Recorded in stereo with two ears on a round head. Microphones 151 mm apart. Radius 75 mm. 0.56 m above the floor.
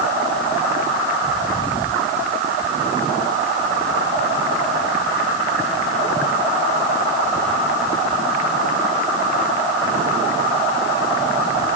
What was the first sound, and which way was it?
Only background noise.